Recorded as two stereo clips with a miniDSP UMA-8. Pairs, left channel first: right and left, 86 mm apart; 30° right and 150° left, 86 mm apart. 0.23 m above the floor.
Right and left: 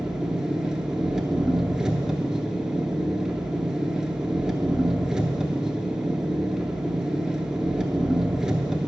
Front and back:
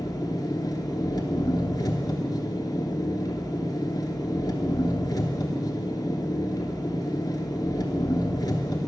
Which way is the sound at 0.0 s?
10° left.